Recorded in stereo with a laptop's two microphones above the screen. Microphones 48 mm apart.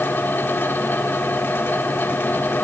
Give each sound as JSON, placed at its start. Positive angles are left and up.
{"t": 0.0, "sound": "a fan", "side_deg": 45, "distance_m": 0.8}